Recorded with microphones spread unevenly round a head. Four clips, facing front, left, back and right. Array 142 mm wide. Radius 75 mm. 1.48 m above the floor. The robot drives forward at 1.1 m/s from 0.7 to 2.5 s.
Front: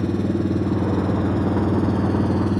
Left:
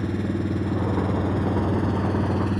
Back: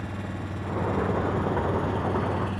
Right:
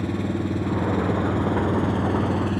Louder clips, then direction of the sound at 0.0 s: Right 1 dB, front 13 dB; 5° right.